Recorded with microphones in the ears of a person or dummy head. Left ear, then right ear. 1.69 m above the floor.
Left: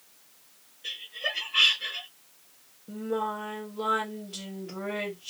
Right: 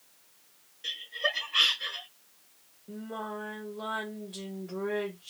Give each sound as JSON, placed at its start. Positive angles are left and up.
{"t": 0.8, "sound": "laughter", "side_deg": -75, "distance_m": 1.4}
{"t": 2.9, "sound": "singing", "side_deg": -10, "distance_m": 1.0}